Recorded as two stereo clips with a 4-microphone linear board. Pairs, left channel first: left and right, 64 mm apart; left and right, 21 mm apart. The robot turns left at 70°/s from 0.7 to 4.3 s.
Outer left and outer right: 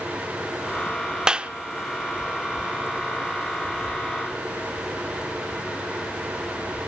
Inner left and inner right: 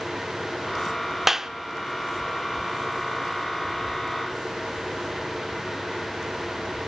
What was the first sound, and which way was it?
A clap, 15° right (ahead or behind).